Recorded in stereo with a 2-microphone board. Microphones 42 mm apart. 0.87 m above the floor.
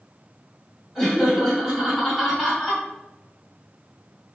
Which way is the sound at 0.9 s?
5° left (ahead or behind).